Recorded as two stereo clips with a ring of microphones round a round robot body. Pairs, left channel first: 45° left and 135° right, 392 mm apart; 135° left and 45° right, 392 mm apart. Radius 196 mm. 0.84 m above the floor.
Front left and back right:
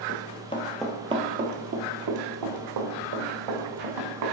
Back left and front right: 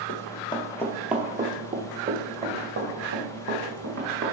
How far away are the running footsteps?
About 0.9 m.